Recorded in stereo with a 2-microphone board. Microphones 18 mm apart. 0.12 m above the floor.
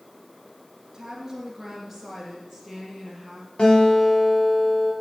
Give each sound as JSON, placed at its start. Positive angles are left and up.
{"t": 0.9, "sound": "a woman speaking", "side_deg": -20, "distance_m": 2.0}
{"t": 3.6, "sound": "a guitar", "side_deg": 65, "distance_m": 4.5}